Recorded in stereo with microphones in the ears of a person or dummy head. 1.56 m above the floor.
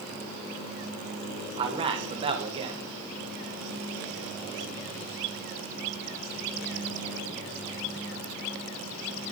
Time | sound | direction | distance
1.6 | a man speaking | 35° right (ahead or behind) | 1.6 m